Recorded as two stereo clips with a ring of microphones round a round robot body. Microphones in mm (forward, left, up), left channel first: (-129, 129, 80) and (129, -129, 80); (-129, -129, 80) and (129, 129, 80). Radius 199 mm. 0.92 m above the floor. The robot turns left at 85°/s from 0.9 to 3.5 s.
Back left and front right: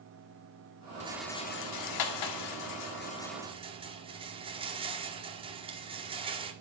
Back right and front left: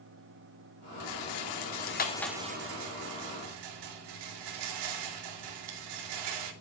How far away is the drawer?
No drawer in this recording.